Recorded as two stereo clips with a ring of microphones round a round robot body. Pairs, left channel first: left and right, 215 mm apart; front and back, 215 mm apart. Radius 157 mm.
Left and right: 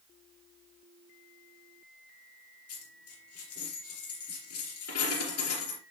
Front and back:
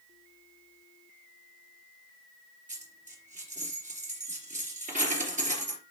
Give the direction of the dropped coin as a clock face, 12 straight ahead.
8 o'clock.